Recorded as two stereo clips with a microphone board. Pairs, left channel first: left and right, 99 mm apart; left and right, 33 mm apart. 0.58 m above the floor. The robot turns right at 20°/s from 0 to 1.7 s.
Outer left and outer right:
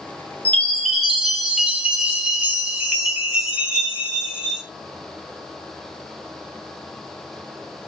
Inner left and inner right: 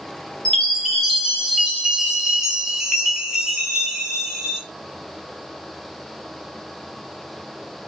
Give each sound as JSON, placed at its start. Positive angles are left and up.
{"t": 0.5, "sound": "a chime", "side_deg": 10, "distance_m": 1.0}